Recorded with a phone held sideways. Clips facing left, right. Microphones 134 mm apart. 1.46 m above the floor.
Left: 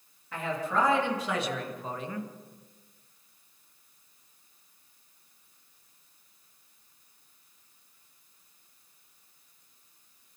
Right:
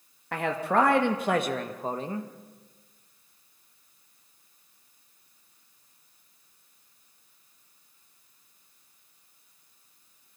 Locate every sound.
0.3 s a man speaking: 75° right (ahead or behind), 2.5 m; by 2.3 s 30° right (ahead or behind), 1.8 m